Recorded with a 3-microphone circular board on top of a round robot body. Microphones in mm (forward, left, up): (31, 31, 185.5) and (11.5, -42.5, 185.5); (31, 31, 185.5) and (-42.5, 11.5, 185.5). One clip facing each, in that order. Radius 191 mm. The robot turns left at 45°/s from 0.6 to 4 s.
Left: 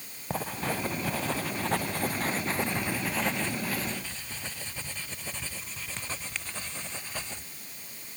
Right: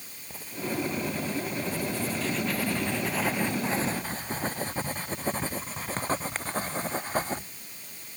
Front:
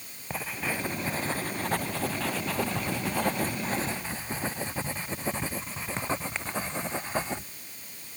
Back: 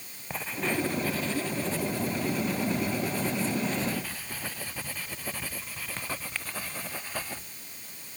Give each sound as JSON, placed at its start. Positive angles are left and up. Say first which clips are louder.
{"t": 0.3, "sound": "writing", "louder": "left 2 dB, back 2 dB", "azimuth_deg": 100}